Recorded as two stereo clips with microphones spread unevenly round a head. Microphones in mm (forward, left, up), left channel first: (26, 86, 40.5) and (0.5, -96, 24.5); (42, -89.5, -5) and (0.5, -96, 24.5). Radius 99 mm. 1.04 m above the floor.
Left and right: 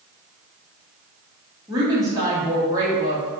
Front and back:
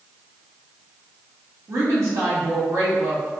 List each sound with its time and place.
1.7 s a woman speaking: 170° right, 1.5 m